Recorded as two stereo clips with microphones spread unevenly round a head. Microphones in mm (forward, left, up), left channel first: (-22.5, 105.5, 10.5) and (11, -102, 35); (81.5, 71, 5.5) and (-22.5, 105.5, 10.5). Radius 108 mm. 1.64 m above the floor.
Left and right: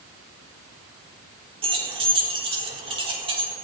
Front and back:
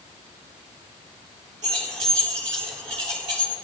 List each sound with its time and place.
1.6 s keys jangling: 145° right, 3.5 m